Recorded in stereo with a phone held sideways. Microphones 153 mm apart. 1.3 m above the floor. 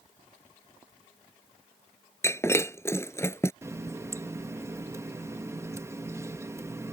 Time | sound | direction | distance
2.2 | breaking glass | 15° left (ahead or behind) | ?
3.6 | a running tap | 20° right (ahead or behind) | ?